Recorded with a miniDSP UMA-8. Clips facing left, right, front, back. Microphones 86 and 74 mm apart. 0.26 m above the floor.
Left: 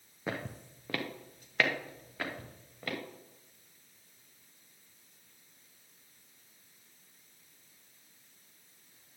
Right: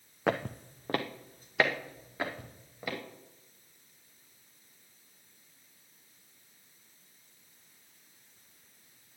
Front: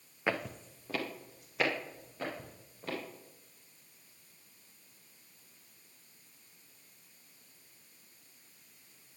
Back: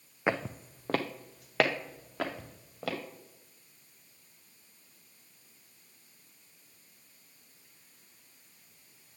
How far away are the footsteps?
About 0.8 m.